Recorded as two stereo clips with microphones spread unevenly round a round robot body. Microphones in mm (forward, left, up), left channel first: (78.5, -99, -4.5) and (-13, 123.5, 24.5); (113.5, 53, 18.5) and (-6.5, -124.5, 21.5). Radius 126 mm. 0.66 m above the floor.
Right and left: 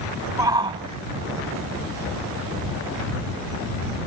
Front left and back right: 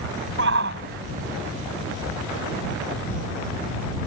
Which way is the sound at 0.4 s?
170° right.